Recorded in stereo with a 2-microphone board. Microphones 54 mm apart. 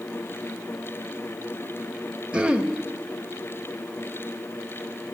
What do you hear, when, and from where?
2.3 s throat clearing: 20° right (ahead or behind), 0.5 m